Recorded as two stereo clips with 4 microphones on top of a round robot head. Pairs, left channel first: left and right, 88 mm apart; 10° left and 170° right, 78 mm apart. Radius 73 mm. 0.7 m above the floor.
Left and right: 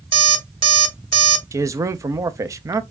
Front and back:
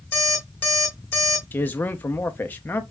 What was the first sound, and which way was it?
An alarm clock, 65° right.